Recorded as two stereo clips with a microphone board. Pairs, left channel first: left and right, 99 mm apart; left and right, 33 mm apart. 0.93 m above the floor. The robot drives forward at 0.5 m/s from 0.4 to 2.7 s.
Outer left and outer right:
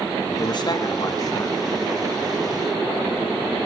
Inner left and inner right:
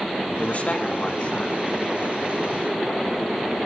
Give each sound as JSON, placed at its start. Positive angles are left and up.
{"t": 0.4, "sound": "a man speaking", "side_deg": 50, "distance_m": 1.2}